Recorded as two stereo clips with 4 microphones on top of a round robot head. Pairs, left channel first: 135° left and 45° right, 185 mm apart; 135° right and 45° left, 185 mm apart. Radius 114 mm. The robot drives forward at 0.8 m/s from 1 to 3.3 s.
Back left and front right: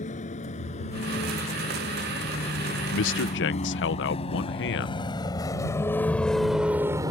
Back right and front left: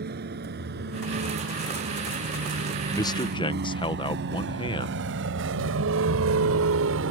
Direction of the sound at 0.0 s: 80° left.